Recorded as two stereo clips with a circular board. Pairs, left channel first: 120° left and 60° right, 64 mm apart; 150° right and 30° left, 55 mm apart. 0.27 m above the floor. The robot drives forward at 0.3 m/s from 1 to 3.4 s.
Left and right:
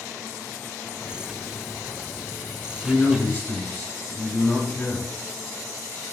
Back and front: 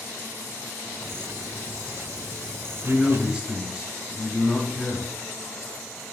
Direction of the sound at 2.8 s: 80° left.